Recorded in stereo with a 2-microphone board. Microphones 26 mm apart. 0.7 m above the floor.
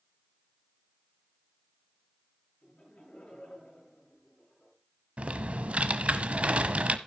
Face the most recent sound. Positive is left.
turn(degrees=-55)  # may be behind; listen again after turning